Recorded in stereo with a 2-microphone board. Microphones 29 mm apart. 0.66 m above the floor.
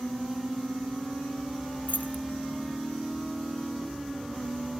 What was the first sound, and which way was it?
Keys jangling, 80° left.